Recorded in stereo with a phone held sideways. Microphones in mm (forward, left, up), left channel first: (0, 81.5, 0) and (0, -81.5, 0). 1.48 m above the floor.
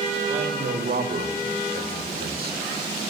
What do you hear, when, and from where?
0.3 s a man speaking: 75° right (ahead or behind), 2 m